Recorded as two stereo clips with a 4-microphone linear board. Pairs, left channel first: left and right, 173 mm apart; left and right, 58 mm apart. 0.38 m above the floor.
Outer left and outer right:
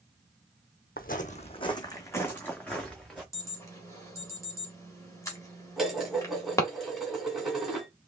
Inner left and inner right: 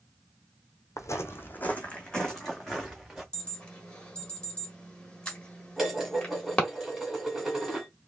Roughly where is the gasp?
No gasp in this recording.